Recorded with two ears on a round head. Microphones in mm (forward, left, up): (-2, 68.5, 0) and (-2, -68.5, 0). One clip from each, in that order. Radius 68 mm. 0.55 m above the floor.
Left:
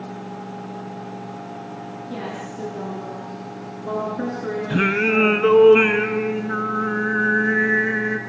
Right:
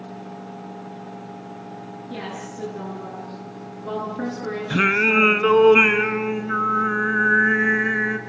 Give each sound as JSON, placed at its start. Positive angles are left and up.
{"t": 2.1, "sound": "a woman speaking", "side_deg": -5, "distance_m": 9.0}
{"t": 4.7, "sound": "singing", "side_deg": -30, "distance_m": 1.5}